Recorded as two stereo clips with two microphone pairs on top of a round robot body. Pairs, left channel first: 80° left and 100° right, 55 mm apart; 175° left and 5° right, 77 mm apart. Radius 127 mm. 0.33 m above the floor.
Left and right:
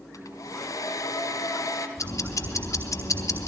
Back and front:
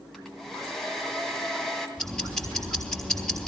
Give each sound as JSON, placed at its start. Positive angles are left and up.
{"t": 0.1, "sound": "a hair dryer", "azimuth_deg": 85, "distance_m": 2.5}
{"t": 2.0, "sound": "ticking", "azimuth_deg": 85, "distance_m": 3.5}